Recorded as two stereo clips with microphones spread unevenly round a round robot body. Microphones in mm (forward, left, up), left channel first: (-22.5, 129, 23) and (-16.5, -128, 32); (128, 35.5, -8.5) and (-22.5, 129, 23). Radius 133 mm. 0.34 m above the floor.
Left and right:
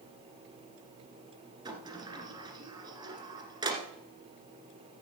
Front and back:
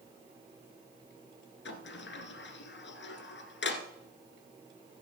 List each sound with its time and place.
1.6 s a sliding door: 15° right, 1.5 m